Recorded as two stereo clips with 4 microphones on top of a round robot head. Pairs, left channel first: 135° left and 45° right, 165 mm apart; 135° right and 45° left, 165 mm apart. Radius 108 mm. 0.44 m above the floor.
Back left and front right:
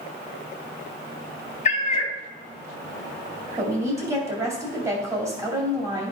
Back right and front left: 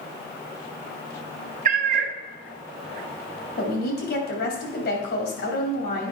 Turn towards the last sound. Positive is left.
turn(degrees=-115)